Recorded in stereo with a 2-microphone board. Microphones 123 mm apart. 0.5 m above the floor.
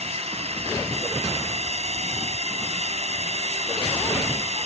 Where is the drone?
55° right (ahead or behind).